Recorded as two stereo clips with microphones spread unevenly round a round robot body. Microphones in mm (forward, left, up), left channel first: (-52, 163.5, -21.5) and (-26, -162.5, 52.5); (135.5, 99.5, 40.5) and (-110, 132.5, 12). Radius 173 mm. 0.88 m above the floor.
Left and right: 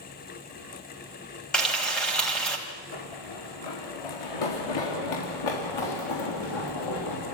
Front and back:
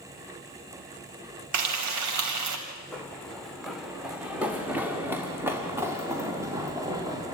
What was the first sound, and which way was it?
Frying, straight behind.